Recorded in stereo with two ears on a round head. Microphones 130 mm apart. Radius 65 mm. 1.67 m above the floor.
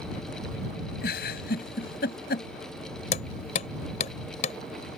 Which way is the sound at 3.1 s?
50° left (ahead or behind).